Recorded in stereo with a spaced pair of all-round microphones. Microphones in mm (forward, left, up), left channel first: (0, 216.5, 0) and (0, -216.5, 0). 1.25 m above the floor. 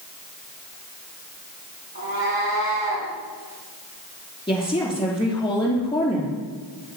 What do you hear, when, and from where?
1.9 s a cat meowing: 25° right (ahead or behind), 5 m; by 3.1 s 30° right (ahead or behind), 4.5 m
4.5 s a woman speaking: 10° left (ahead or behind), 3 m